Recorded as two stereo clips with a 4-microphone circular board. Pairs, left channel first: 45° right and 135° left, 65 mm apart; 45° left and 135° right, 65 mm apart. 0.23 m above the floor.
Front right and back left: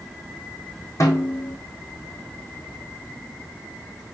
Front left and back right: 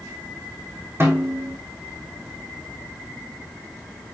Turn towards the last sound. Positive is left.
turn(degrees=-85)